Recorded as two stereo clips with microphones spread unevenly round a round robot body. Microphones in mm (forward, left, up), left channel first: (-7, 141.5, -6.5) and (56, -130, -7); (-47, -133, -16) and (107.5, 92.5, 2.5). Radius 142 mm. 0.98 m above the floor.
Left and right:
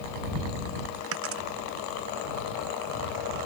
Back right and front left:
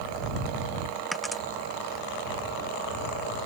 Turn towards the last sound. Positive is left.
turn(degrees=-35)